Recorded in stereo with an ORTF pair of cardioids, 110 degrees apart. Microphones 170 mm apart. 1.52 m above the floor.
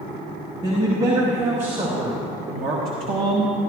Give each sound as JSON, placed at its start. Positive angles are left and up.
{"t": 0.6, "sound": "a man speaking", "azimuth_deg": -35, "distance_m": 3.0}